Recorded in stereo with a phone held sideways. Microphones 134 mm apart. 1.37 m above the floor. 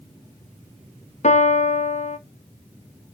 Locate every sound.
1.2 s a piano: 55° left (ahead or behind), 0.6 m